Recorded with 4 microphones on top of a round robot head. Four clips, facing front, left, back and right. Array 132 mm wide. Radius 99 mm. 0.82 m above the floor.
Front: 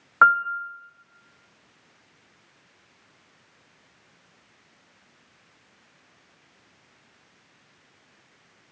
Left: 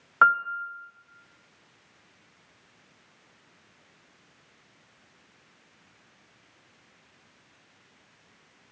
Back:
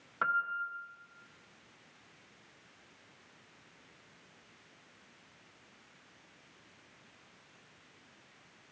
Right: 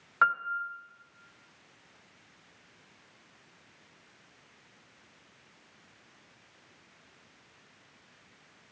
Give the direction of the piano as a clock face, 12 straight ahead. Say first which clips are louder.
Left 6 dB, front 15 dB; 11 o'clock.